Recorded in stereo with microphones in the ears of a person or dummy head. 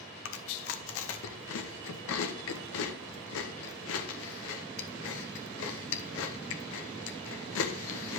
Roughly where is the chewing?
Left.